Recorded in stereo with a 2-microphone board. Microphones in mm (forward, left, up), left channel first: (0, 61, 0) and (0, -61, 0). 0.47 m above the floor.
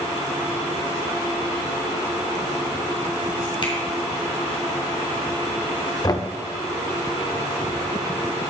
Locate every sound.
3.6 s a finger snap: 40° left (ahead or behind), 2.5 m
6.0 s knocking: 30° left (ahead or behind), 0.7 m